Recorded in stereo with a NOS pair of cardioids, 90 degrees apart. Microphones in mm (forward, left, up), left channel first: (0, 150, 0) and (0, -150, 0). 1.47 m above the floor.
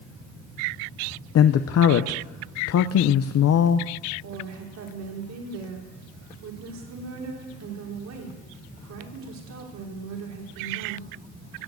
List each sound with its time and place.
1.4 s a man speaking: 55° left, 0.8 m
4.2 s a woman speaking: 65° right, 3.5 m